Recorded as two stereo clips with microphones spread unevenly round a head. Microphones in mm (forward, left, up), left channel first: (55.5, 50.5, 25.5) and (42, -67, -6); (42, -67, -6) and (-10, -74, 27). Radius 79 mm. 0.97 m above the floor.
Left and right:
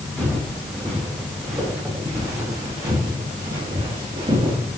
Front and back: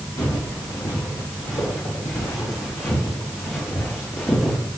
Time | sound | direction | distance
0.2 | footsteps | 5° right | 4 m